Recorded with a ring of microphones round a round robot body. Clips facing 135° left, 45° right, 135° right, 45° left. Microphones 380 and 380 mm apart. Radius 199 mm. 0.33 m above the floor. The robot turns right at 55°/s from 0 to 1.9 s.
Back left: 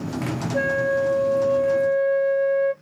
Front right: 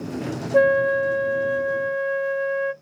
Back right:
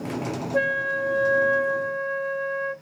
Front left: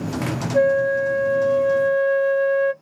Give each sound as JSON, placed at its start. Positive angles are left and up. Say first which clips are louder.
{"t": 0.5, "sound": "a flute", "louder": "front right 5 dB, front left 11 dB", "azimuth_deg": -60, "distance_m": 0.6}